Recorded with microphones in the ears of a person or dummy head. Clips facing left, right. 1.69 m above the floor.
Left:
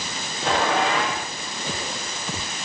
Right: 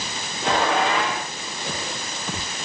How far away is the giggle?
No giggle in this recording.